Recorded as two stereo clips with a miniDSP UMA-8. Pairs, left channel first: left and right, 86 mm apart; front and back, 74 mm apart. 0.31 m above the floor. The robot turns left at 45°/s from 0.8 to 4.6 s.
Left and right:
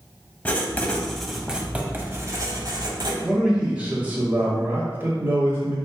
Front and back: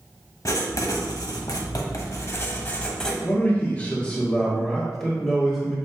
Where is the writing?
20° left, 0.8 m; by 3.1 s 85° right, 0.8 m.